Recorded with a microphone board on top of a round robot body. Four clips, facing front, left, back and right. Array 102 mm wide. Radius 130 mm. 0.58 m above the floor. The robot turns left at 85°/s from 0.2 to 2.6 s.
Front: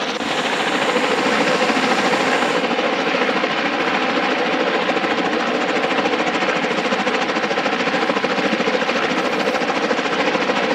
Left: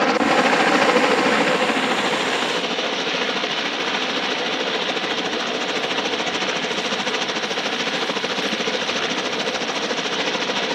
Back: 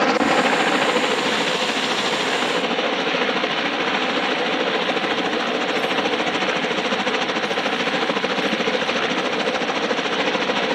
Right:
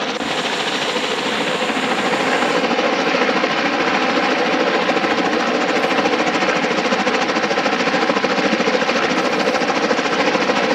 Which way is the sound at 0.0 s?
135° left.